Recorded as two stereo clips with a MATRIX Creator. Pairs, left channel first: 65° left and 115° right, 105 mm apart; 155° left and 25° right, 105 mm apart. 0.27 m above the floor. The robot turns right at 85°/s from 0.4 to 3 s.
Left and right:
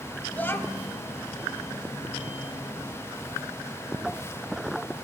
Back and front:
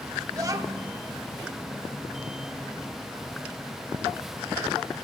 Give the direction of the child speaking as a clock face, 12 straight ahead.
12 o'clock.